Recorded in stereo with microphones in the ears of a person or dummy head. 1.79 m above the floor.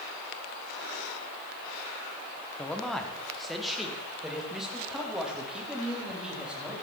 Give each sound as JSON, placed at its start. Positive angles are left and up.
{"t": 2.6, "sound": "a man speaking", "side_deg": 5, "distance_m": 1.8}